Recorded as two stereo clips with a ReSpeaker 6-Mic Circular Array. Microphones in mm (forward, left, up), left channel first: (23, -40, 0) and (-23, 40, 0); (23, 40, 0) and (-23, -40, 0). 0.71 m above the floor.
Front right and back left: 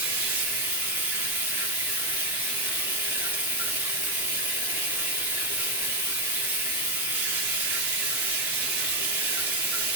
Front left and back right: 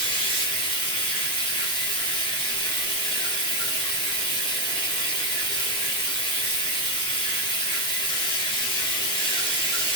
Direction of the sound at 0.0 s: 55° left.